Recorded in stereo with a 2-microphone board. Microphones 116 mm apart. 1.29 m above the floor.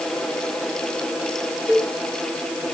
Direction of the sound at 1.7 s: Centre (ahead or behind).